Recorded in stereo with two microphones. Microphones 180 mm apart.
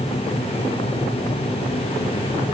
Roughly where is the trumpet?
I don't hear a trumpet.